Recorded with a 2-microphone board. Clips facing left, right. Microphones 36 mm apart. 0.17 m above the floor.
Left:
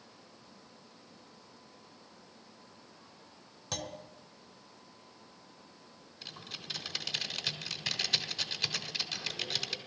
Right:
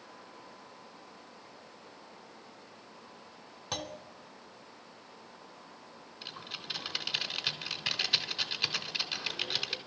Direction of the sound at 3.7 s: 20° right (ahead or behind).